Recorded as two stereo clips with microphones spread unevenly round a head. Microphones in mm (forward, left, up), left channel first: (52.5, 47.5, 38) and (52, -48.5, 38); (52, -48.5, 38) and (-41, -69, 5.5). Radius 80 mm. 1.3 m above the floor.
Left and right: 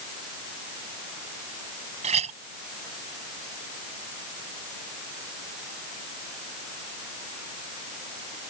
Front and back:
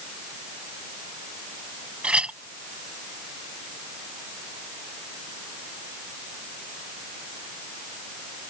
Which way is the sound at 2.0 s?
85° right.